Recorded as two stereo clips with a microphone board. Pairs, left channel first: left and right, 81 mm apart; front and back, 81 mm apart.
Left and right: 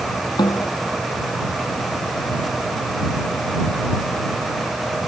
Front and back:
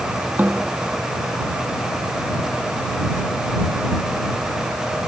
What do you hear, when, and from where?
0.4 s a snare drum: 110° left